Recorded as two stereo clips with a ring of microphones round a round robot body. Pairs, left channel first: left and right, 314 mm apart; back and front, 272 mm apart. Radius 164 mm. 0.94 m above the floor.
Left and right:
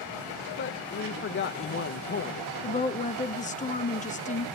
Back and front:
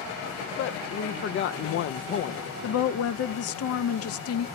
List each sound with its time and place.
0.6 s a woman speaking: 140° left, 0.5 m
2.6 s a woman speaking: 155° left, 0.8 m